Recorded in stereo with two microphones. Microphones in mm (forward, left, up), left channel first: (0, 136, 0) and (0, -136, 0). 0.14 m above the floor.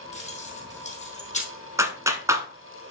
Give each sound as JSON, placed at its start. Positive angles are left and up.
{"t": 0.1, "sound": "keys jangling", "side_deg": 25, "distance_m": 3.5}
{"t": 1.8, "sound": "a clap", "side_deg": -10, "distance_m": 0.9}